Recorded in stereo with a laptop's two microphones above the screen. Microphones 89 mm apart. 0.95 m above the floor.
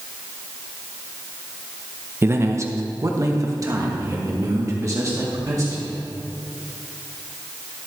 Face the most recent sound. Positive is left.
turn(degrees=-35)  # may be behind; listen again after turning